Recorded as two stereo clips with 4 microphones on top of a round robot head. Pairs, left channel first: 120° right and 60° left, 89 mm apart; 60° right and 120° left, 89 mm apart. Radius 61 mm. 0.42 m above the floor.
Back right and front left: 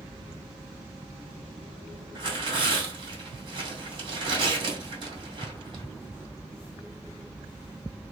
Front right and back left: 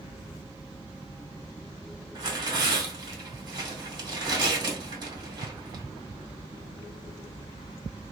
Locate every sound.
2.1 s tearing paper: 85° left, 2 m